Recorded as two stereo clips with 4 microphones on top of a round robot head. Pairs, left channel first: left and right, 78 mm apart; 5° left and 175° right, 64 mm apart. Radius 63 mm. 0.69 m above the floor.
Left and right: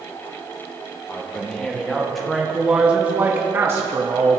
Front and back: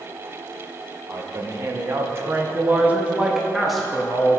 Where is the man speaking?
165° left, 1.6 m; by 4.4 s 65° right, 1.3 m.